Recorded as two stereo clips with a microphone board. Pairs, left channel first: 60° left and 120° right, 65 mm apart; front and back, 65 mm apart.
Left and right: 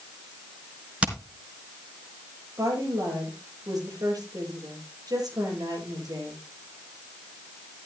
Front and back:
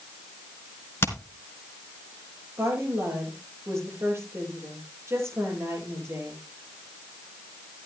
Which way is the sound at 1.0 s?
50° right.